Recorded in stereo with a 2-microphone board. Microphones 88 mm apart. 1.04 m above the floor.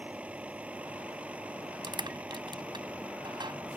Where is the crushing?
65° right (ahead or behind).